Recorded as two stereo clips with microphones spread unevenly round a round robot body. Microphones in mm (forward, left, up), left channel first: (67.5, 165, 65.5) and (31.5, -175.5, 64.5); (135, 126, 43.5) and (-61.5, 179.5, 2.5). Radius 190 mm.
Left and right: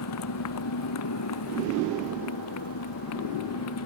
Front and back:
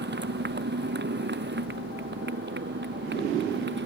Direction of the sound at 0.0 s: 130° left.